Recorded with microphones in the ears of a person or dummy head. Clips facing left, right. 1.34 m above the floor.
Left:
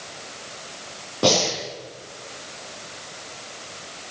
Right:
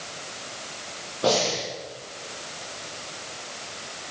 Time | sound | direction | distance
1.2 | breathing | 80° left | 8.5 m